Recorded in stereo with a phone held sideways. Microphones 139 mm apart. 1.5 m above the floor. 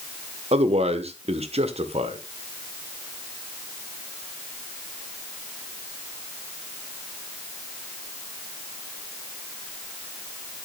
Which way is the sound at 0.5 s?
50° right (ahead or behind).